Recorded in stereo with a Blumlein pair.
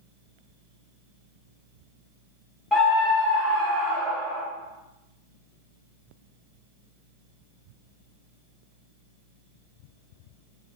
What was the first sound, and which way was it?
A scream, 5° left.